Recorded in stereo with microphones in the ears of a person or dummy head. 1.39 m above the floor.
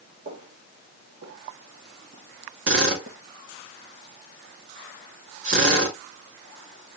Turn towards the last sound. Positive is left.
turn(degrees=-80)